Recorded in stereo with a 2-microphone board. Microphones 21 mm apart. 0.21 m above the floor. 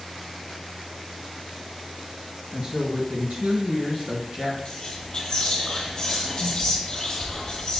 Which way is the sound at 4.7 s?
45° left (ahead or behind).